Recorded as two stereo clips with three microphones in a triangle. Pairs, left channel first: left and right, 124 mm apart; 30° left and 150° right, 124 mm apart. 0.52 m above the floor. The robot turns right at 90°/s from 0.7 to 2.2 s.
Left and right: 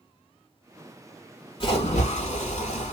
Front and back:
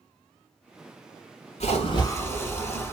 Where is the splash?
45° left, 0.9 m; by 2.9 s 95° left, 0.9 m.